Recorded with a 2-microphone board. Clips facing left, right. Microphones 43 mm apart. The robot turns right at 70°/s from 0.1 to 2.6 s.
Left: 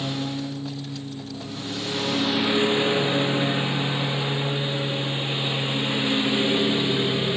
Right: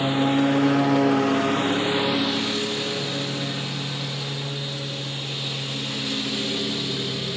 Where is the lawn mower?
155° right; by 7.4 s 20° left.